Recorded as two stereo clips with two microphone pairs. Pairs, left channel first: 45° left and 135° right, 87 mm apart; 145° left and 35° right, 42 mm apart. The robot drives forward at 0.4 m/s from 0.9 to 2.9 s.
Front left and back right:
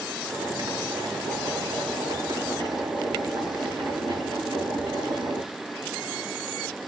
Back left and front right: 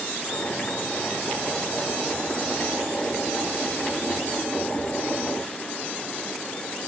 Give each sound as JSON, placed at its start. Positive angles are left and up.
{"t": 0.3, "sound": "boiling", "azimuth_deg": -160, "distance_m": 4.0}